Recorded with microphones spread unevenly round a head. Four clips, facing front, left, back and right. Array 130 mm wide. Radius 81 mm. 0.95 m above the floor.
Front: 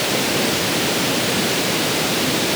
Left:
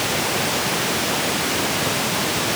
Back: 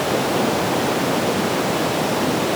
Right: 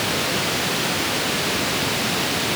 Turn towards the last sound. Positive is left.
No sound to turn to.